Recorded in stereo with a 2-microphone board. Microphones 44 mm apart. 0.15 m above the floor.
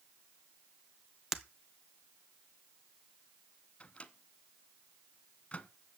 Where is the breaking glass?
5° right (ahead or behind), 1.0 m.